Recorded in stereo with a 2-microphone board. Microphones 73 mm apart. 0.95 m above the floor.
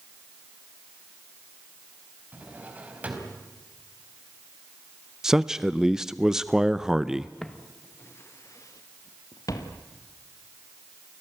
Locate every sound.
2.3 s a drawer: 20° right (ahead or behind), 4 m
5.2 s a man speaking: 10° right (ahead or behind), 0.5 m
7.4 s footsteps: 10° left (ahead or behind), 1.1 m; by 9.8 s 60° left (ahead or behind), 2.5 m